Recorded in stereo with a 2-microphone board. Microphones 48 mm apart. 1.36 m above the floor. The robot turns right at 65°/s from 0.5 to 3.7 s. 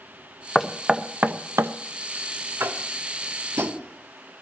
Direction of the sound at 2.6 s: 50° right (ahead or behind).